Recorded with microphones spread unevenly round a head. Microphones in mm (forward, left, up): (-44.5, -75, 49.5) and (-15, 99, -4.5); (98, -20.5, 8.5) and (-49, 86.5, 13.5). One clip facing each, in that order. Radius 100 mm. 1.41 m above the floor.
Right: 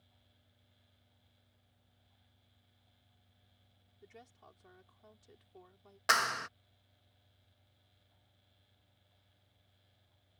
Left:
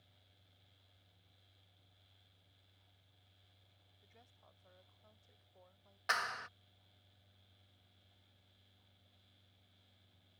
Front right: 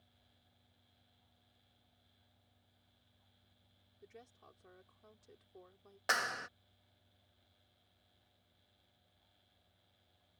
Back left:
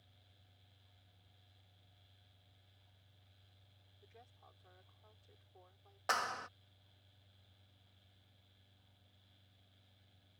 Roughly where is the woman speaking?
Right.